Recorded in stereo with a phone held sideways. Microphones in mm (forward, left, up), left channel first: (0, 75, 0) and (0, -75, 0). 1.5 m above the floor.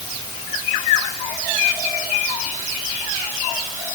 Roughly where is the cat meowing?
I don't hear a cat meowing.